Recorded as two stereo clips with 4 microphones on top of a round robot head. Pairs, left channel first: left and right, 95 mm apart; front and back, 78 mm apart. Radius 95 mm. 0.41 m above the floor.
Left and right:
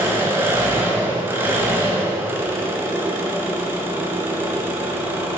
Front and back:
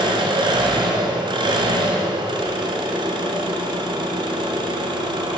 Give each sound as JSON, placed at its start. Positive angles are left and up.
{"t": 0.0, "sound": "an engine running", "azimuth_deg": -160, "distance_m": 1.6}